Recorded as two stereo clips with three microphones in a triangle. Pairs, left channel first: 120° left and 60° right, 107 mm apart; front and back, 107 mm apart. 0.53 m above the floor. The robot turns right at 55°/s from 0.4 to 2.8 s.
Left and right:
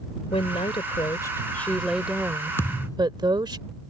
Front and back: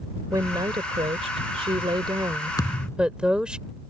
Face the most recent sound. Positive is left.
turn(degrees=65)